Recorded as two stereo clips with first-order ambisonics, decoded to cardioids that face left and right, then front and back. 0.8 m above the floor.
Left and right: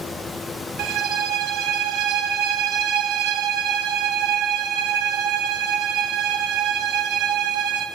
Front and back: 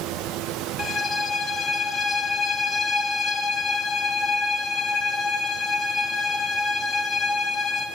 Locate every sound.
0.8 s a violin: 70° right, 1.5 m